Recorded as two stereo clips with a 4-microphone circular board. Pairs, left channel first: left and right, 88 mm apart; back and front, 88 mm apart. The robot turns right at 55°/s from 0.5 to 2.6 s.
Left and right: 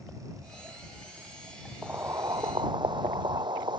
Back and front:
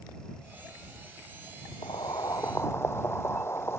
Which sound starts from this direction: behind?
Boiling, at 1.8 s.